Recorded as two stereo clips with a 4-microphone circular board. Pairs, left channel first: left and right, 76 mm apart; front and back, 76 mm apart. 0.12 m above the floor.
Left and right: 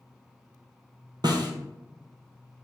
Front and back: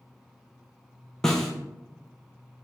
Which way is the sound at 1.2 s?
85° right.